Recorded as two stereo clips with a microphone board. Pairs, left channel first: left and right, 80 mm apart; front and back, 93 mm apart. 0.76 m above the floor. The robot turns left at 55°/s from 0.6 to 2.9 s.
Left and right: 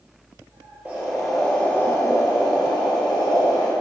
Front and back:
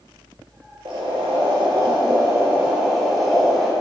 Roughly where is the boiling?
Behind right.